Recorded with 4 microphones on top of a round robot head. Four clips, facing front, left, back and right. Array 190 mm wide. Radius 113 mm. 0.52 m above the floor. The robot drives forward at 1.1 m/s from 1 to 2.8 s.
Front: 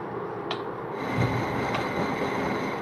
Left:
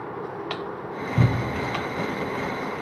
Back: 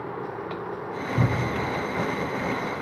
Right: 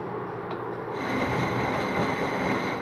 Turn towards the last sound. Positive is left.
turn(degrees=145)